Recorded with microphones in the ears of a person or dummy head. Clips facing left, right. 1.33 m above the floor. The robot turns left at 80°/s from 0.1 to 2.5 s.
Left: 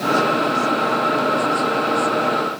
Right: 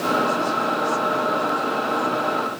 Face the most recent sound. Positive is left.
No sound to turn to.